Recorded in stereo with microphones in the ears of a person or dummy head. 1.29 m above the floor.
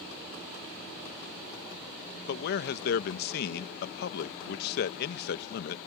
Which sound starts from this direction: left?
A man speaking, at 2.3 s.